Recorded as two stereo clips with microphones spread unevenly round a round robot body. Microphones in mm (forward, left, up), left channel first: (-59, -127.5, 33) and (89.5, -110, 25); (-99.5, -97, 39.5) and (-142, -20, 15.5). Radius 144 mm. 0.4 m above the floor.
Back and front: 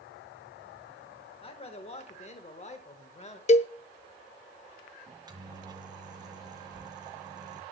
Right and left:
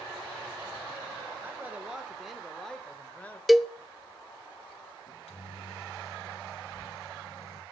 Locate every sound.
1.4 s a man speaking: 155° left, 1.3 m; by 3.4 s 140° right, 1.7 m
3.5 s a cowbell: 165° right, 0.6 m
5.1 s a microwave: 55° right, 2 m